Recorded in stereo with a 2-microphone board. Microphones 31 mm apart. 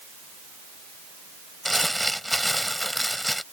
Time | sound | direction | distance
1.6 | crumpling | 5° left (ahead or behind) | ?